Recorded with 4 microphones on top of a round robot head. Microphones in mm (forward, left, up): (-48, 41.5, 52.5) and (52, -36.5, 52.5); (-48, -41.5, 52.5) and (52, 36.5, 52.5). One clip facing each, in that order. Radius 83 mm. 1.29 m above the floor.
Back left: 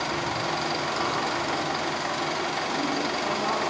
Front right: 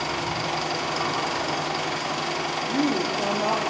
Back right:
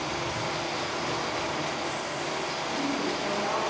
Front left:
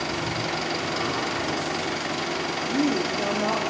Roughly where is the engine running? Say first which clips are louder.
Even, front left 3 dB; ahead left.